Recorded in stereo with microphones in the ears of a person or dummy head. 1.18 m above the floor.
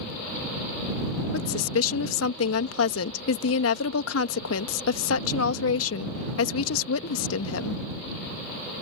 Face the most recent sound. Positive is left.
turn(degrees=80)